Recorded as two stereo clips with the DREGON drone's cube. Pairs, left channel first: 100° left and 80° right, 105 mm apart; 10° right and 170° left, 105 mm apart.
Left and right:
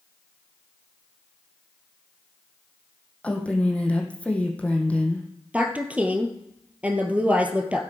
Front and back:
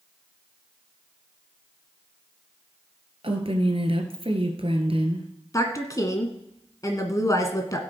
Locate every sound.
3.2 s a woman speaking: 175° left, 2 m
5.5 s a woman speaking: 15° right, 1.7 m